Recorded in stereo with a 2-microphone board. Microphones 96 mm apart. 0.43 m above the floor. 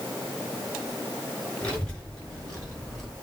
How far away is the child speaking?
About 5.5 m.